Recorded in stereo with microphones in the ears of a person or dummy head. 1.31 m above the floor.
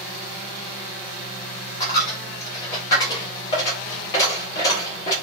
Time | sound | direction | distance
1.8 | a dropped coin | 20° left (ahead or behind) | 0.7 m